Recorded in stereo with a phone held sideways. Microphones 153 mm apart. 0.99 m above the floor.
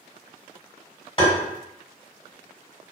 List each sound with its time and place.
1.2 s tapping: 35° left (ahead or behind), 1.5 m